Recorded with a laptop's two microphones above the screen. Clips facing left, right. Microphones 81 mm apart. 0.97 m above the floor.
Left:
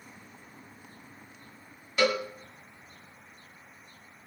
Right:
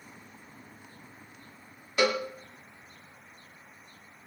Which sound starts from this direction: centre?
A cowbell, at 2.0 s.